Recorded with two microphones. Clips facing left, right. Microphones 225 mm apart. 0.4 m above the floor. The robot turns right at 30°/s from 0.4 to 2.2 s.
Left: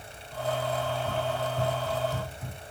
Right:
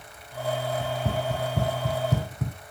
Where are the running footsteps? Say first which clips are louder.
Right 2 dB; 70° right (ahead or behind), 1.1 m; by 2.6 s 75° right (ahead or behind), 1.1 m.